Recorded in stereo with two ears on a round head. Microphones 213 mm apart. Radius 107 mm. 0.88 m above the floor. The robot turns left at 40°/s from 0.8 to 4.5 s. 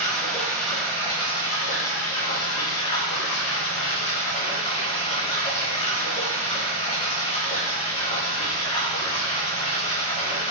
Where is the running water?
175° left, 1.6 m; by 10.5 s 30° left, 1.6 m.